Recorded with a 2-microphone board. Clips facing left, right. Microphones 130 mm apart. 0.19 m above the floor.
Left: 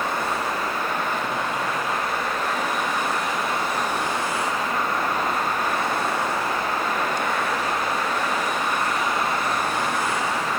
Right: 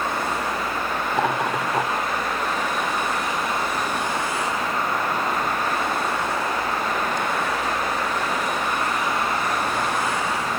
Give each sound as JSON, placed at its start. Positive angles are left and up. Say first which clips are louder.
{"t": 1.1, "sound": "laughter", "louder": "right 4 dB", "side_deg": -70, "distance_m": 6.5}